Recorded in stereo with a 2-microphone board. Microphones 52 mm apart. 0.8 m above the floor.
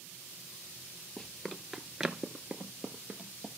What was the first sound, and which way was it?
Running footsteps, 10° left (ahead or behind).